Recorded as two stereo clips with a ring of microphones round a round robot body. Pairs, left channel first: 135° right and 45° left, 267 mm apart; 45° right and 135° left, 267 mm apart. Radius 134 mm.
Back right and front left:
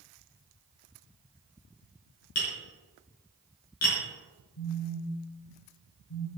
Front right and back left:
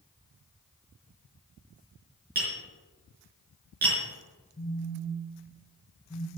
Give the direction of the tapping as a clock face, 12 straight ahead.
6 o'clock.